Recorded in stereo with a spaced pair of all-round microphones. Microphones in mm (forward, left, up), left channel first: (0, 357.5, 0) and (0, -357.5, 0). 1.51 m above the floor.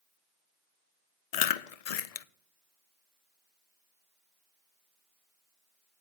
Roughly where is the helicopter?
No helicopter in this recording.